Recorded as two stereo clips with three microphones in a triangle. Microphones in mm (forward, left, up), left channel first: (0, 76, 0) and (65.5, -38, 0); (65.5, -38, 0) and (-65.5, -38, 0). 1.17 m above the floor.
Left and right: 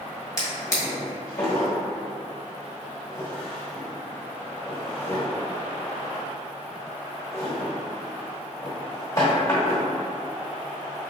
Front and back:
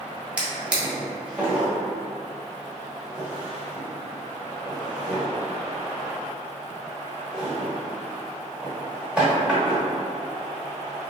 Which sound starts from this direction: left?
A drawer, at 0.4 s.